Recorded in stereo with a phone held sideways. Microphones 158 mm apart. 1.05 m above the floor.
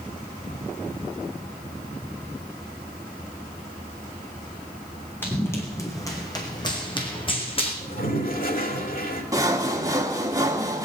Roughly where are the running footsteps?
Centre.